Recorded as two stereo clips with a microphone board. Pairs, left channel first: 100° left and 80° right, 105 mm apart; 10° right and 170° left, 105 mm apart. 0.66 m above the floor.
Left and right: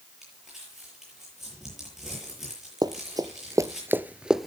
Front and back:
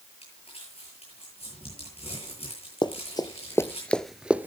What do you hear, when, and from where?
0.2 s crumpling: 5° left, 8.5 m
2.8 s running footsteps: 35° right, 1.0 m; by 4.5 s 170° right, 0.6 m